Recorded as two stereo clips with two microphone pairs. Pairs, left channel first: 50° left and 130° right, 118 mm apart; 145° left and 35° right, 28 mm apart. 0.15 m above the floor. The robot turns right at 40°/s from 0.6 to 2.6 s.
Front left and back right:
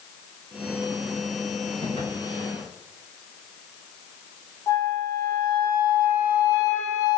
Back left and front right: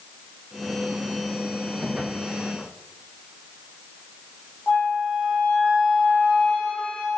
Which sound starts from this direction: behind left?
A flute, at 4.7 s.